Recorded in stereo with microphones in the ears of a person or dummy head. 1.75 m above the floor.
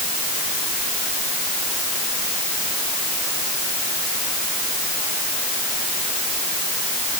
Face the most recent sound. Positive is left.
No sound to turn to.